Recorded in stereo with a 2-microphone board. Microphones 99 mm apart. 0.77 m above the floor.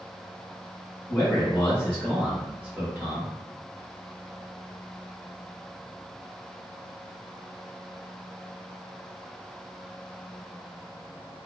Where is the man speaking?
35° left (ahead or behind), 1.2 m; by 3.3 s 30° right (ahead or behind), 1.1 m.